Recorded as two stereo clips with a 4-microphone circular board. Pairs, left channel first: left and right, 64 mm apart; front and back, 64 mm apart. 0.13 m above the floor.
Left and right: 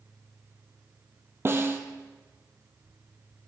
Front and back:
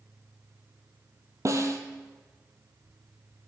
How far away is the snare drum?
About 1.2 m.